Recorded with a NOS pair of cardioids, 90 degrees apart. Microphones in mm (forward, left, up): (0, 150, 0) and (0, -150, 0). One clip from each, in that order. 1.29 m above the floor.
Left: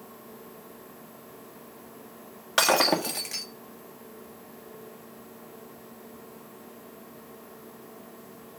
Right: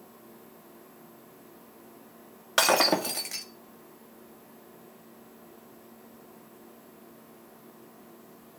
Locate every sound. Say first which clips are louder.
0.0 s a machine running: left 5 dB; 35° left, 1.2 m
2.6 s breaking glass: left 1 dB; 5° left, 1.6 m